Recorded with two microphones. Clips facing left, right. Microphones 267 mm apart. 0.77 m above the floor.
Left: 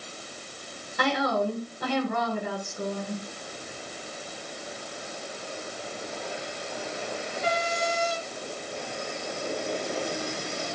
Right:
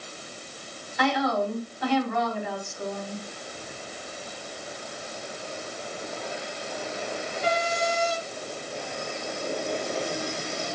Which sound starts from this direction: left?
A woman speaking, at 1.0 s.